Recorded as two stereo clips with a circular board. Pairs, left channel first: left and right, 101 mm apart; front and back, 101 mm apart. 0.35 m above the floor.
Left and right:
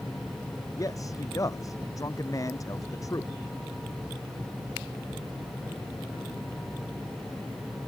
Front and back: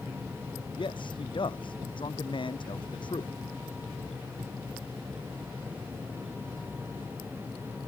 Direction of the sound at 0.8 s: 35° left.